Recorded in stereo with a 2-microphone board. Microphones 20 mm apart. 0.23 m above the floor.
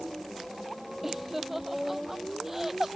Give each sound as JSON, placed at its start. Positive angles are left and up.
{"t": 1.0, "sound": "laughter", "side_deg": -10}